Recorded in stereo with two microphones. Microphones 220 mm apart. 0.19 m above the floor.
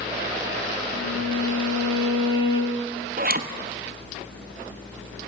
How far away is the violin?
About 3 m.